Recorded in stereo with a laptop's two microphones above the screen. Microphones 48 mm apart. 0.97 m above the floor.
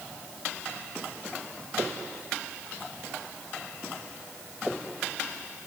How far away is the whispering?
No whispering in this recording.